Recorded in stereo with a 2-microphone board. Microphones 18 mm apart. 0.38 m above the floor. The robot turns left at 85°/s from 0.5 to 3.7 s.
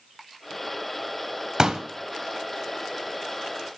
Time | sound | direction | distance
1.6 | a pop | 35° right (ahead or behind) | 0.8 m